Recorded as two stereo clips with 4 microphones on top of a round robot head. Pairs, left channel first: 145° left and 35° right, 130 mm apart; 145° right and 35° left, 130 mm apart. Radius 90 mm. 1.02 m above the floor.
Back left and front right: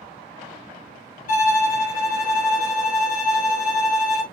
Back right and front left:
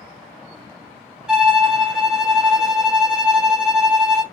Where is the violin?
120° left, 1.0 m.